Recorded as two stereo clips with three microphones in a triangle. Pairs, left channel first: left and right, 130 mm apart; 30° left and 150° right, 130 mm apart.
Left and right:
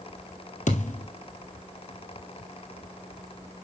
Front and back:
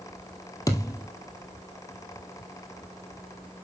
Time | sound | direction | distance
0.7 | a thud | 90° left | 1.9 m